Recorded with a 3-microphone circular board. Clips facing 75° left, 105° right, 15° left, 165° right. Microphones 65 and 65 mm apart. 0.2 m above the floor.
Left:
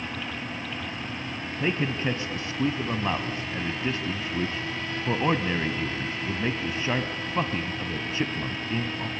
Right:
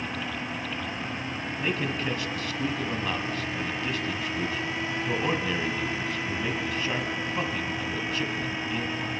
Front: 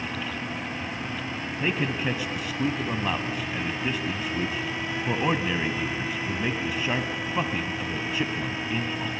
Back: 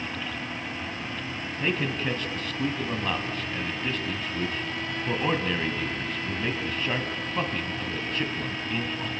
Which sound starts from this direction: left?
A man speaking, at 1.6 s.